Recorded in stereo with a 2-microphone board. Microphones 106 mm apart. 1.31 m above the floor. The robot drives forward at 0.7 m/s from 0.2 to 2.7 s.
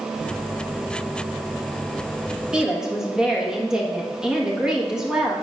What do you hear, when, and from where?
2.5 s a woman speaking: 5° right (ahead or behind), 1.4 m